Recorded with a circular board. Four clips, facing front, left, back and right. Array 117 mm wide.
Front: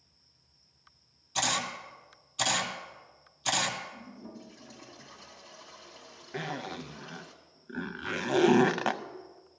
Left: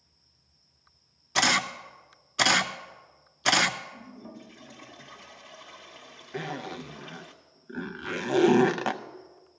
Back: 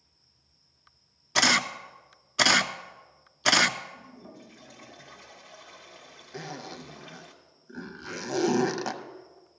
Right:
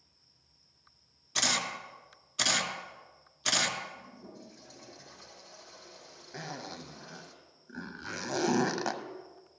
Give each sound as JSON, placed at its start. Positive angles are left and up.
{"t": 1.4, "sound": "a camera shutter", "azimuth_deg": 150, "distance_m": 0.6}
{"t": 3.9, "sound": "a toilet flushing", "azimuth_deg": 125, "distance_m": 1.5}
{"t": 6.3, "sound": "a zipper", "azimuth_deg": 40, "distance_m": 0.5}